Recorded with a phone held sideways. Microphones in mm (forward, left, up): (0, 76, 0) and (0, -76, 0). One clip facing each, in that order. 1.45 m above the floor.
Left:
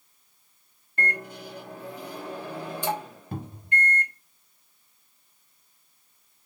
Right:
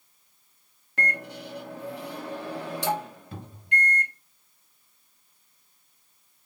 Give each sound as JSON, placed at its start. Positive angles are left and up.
{"t": 1.0, "sound": "a microwave", "side_deg": -80, "distance_m": 1.2}
{"t": 3.3, "sound": "a cupboard door", "side_deg": 45, "distance_m": 1.2}